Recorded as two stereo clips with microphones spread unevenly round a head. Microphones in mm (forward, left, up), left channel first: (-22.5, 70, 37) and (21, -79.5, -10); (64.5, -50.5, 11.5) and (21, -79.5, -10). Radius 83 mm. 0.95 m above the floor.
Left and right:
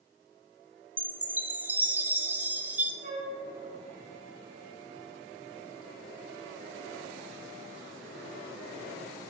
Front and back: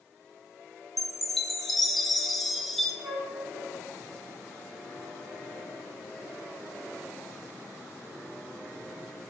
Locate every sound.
1.0 s a chime: 100° right, 0.5 m
3.0 s a flute: 110° right, 1.5 m